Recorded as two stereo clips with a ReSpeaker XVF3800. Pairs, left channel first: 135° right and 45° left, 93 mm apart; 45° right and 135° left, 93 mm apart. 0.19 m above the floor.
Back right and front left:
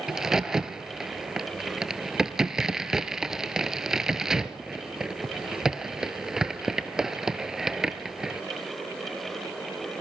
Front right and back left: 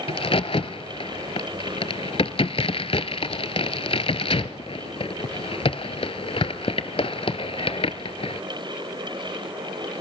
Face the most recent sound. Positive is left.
turn(degrees=-40)